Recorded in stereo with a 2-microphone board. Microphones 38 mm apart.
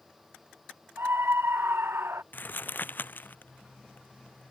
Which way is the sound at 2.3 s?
55° left (ahead or behind).